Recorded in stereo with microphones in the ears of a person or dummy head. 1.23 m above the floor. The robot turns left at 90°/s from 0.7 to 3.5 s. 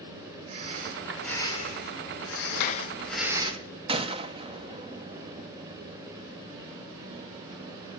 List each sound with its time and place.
0.5 s breathing: 140° right, 5 m; by 3.5 s 30° right, 5 m
2.5 s a clap: 65° left, 1.4 m; by 2.9 s 30° left, 1.4 m
3.9 s a gunshot: 20° right (ahead or behind), 0.9 m